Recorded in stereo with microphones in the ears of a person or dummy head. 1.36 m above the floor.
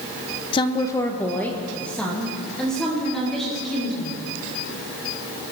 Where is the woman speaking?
25° left (ahead or behind), 0.7 m; by 4.2 s centre (ahead or behind), 4.5 m.